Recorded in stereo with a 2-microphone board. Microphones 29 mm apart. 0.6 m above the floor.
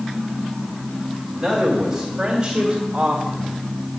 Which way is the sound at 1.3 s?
5° left (ahead or behind).